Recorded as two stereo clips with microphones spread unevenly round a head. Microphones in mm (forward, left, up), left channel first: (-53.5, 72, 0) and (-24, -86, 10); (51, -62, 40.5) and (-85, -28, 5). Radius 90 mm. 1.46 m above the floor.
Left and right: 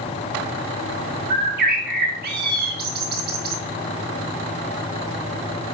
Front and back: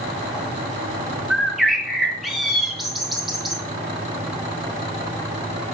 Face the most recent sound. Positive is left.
turn(degrees=-105)